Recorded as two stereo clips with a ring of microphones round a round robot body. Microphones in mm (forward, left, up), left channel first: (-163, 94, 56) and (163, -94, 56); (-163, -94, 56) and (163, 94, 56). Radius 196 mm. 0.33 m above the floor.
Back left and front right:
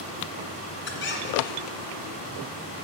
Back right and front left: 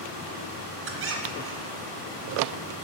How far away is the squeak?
About 1.8 m.